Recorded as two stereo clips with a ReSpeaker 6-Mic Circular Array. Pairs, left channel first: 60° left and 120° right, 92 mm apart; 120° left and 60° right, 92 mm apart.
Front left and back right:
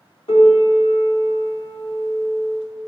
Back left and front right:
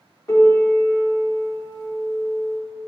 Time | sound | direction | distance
0.3 | a piano | 60° left | 1.4 m